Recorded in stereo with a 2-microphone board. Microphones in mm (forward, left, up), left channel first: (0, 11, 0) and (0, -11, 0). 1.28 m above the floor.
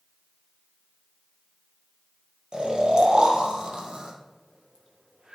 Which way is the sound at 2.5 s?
50° right (ahead or behind).